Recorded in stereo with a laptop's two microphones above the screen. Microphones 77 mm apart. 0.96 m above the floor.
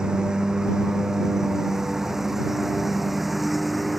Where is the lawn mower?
10° right (ahead or behind); by 4.0 s centre (ahead or behind).